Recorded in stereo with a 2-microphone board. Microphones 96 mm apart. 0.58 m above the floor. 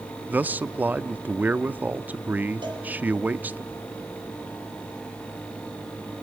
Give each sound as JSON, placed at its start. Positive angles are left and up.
{"t": 0.3, "sound": "a man speaking", "side_deg": -15, "distance_m": 0.6}
{"t": 2.6, "sound": "a cowbell", "side_deg": -55, "distance_m": 5.0}